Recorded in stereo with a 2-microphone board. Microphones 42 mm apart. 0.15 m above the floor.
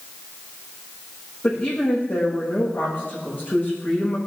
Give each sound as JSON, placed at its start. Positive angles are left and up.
{"t": 1.4, "sound": "a woman speaking", "side_deg": 50, "distance_m": 8.0}